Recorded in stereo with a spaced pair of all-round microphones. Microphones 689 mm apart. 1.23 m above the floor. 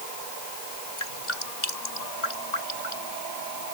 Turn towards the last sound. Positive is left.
turn(degrees=90)